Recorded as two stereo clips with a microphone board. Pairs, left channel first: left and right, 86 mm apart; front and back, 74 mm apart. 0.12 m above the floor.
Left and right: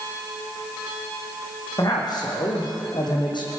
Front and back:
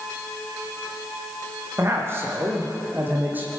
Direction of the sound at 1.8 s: 125° left.